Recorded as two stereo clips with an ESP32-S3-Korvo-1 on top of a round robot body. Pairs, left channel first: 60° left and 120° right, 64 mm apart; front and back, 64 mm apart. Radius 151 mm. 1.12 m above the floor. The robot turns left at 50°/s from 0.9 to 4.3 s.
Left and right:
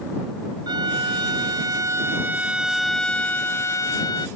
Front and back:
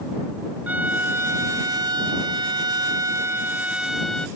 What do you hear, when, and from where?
0.7 s a violin: 115° right; by 4.3 s 80° left